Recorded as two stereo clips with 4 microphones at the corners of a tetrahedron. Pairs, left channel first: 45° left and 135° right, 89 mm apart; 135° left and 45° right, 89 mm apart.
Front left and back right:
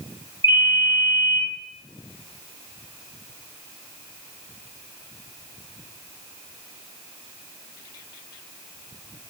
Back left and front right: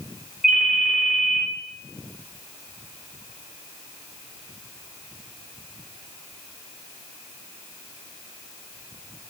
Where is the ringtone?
40° left, 2.5 m.